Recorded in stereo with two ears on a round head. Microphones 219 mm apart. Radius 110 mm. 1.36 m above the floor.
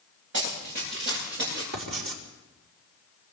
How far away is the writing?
About 4.5 m.